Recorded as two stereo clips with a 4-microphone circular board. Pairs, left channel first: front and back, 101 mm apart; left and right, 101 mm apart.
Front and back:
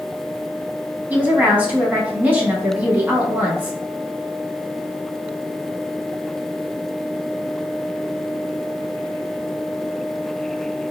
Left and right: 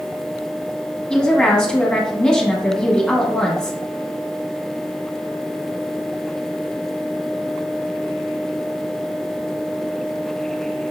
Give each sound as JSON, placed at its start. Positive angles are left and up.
{"t": 1.1, "sound": "a woman speaking", "azimuth_deg": 155, "distance_m": 1.0}